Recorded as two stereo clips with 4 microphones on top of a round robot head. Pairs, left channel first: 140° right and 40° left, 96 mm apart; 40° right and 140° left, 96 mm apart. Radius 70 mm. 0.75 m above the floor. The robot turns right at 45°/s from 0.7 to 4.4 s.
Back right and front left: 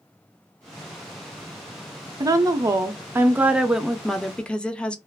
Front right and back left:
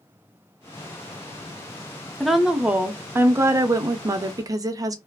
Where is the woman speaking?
50° left, 0.5 m; by 5.0 s 150° left, 0.5 m.